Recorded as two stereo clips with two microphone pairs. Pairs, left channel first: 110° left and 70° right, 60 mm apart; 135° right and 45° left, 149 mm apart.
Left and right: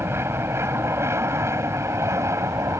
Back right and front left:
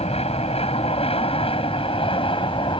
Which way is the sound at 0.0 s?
105° right.